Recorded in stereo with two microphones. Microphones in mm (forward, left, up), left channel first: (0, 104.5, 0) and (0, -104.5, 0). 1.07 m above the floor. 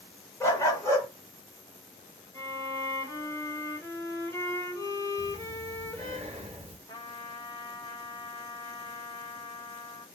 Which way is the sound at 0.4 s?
15° left (ahead or behind).